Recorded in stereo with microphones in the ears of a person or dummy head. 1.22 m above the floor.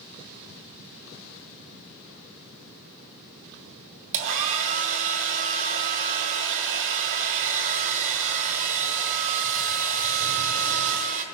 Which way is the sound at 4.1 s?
65° right (ahead or behind).